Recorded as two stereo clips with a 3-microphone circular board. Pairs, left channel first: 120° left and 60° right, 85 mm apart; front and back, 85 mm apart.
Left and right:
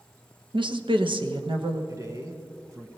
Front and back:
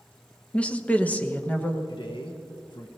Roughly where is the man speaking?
Ahead.